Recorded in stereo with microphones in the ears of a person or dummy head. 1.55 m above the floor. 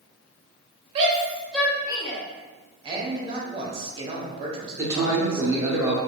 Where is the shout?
35° right (ahead or behind), 0.9 m; by 2.2 s 30° left (ahead or behind), 1.2 m.